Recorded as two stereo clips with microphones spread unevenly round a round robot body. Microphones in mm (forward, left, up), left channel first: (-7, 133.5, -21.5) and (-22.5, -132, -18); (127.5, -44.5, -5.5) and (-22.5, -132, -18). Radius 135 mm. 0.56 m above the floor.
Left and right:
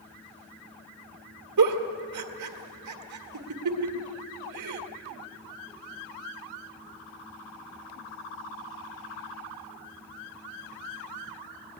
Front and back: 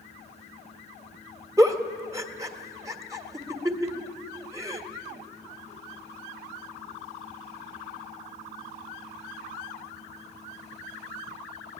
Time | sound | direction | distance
1.6 | a giggle | 80° right | 1.8 m